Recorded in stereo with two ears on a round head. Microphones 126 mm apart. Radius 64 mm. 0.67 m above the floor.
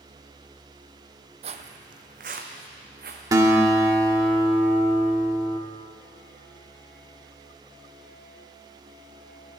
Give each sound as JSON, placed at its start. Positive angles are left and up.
{"t": 1.4, "sound": "footsteps", "side_deg": -45, "distance_m": 1.0}
{"t": 3.3, "sound": "a guitar", "side_deg": -25, "distance_m": 1.4}